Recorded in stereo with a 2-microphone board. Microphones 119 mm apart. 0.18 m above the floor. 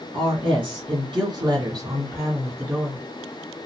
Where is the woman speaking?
45° right (ahead or behind), 2 m; by 3.0 s 15° right (ahead or behind), 1.8 m.